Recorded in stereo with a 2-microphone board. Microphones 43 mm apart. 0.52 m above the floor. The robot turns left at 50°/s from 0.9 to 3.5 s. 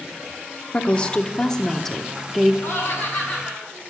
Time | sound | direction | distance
0.7 | a woman speaking | 25° left (ahead or behind) | 0.9 m
2.6 | laughter | 85° left | 5.5 m